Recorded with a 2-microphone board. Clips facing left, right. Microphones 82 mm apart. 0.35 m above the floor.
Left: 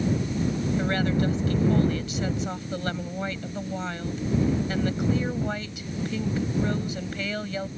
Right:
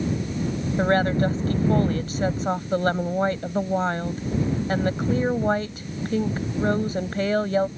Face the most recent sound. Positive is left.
turn(degrees=-40)  # may be behind; listen again after turning